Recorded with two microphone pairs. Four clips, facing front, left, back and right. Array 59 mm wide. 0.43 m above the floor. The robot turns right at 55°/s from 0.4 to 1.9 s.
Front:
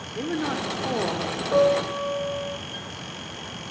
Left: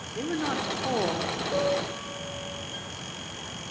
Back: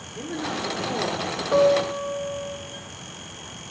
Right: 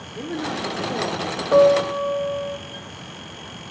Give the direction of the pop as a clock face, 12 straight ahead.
No pop in this recording.